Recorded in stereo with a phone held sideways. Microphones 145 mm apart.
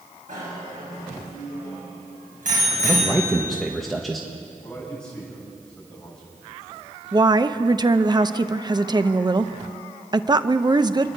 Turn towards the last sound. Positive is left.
turn(degrees=-30)  # may be behind; listen again after turning